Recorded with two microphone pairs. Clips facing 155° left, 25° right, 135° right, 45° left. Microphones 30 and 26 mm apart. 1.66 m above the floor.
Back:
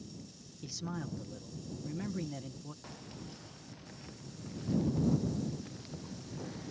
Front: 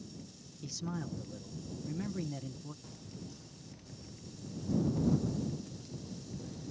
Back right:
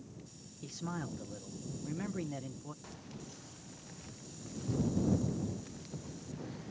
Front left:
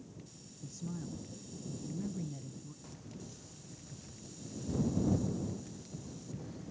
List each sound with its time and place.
0.6 s a man speaking: 125° right
2.8 s keys jangling: 165° left